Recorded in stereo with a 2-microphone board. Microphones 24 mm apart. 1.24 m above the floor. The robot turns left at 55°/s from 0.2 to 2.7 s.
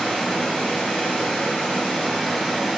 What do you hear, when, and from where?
0.0 s running water: 140° left, 1.8 m; by 2.8 s 5° left, 1.8 m